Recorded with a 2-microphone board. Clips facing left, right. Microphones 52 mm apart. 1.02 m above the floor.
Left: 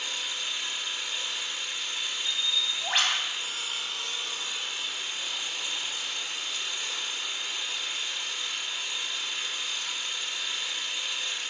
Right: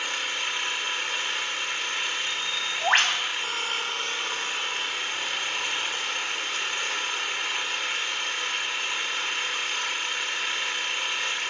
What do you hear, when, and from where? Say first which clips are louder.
0.0 s an engine running: right 5 dB; 55° right (ahead or behind), 2 m
2.2 s a bird: right 2 dB; 50° right (ahead or behind), 3 m